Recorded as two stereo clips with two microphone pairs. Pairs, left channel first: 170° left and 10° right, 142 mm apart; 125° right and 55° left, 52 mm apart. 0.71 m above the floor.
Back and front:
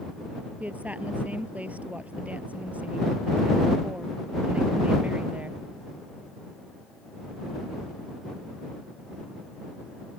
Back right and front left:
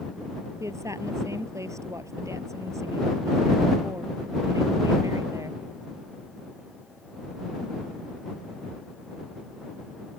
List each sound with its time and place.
0.6 s a woman speaking: 70° left